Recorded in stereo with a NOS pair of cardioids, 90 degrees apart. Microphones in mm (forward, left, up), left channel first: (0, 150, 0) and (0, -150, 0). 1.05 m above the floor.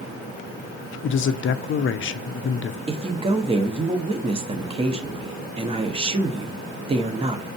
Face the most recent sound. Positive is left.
turn(degrees=-20)